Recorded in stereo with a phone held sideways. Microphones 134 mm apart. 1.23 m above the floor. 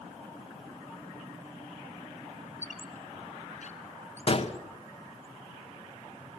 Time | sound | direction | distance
2.6 | a squeak | 65° left (ahead or behind) | 2.5 m
4.3 | a gunshot | 45° left (ahead or behind) | 1.6 m